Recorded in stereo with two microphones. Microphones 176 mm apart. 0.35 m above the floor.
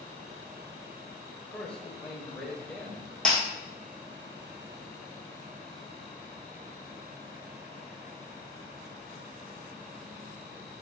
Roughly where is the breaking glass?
Centre.